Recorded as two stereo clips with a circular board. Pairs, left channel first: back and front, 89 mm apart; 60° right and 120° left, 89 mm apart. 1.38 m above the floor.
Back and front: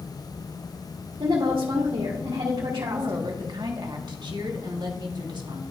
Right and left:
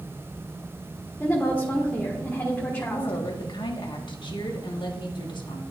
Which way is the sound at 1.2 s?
5° left.